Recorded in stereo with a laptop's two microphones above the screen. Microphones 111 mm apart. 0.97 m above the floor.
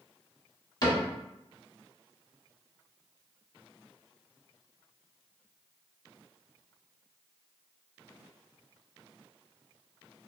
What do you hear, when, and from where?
0.8 s a cupboard door: 40° left (ahead or behind), 1.0 m